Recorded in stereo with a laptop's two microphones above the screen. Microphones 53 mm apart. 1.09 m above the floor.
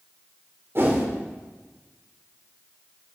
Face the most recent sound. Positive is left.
turn(degrees=-50)  # may be behind; listen again after turning